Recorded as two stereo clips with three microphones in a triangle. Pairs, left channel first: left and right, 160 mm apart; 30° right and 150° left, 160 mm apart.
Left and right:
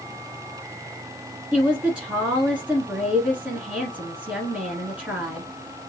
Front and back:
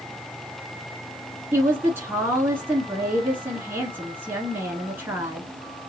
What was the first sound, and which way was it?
A woman speaking, 160° right.